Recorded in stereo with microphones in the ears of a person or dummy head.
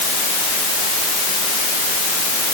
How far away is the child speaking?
I don't hear a child speaking.